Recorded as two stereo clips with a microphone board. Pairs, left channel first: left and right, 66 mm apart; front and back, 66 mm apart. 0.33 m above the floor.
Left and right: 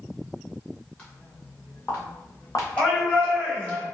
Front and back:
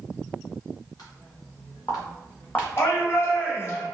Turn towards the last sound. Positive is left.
turn(degrees=25)